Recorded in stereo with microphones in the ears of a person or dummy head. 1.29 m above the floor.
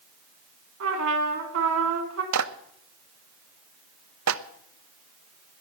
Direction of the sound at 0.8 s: 80° right.